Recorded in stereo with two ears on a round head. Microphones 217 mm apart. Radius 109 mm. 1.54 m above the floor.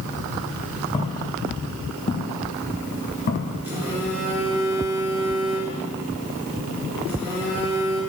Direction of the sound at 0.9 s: 25° left (ahead or behind).